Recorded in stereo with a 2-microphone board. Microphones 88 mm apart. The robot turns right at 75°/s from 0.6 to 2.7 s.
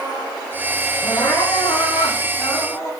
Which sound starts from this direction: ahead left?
Crying, at 1.0 s.